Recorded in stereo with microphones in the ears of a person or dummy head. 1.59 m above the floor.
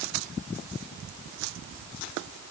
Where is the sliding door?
I don't hear a sliding door.